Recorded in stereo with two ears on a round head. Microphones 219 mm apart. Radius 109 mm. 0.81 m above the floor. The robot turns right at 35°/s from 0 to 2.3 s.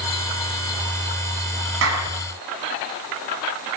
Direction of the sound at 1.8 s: 60° right (ahead or behind).